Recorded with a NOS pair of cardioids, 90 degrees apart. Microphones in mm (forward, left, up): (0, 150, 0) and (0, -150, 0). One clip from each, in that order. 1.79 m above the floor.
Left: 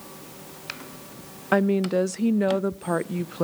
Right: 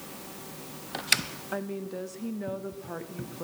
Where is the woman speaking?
60° left, 0.5 m.